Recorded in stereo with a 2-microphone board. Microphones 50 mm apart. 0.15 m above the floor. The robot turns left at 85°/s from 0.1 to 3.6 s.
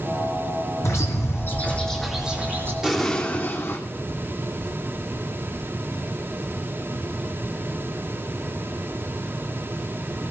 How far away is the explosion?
About 2.5 m.